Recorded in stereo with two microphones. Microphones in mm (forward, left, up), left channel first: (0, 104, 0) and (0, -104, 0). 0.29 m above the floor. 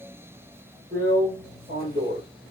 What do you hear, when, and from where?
0.9 s a drill: 45° right (ahead or behind), 4.5 m